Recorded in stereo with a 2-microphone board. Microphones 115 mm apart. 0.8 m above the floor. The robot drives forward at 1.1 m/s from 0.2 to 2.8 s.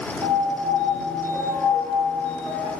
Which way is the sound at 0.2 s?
35° right (ahead or behind).